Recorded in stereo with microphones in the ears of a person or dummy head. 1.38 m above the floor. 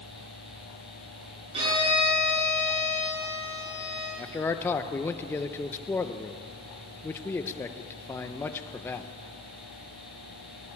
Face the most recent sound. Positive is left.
turn(degrees=10)  # may be behind; listen again after turning